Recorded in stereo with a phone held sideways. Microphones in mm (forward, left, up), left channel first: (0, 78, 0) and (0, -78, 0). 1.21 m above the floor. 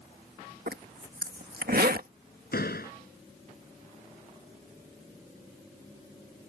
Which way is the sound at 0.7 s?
70° right (ahead or behind).